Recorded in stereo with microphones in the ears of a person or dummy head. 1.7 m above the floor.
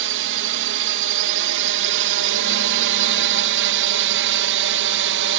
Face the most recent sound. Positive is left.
turn(degrees=-55)  # may be behind; listen again after turning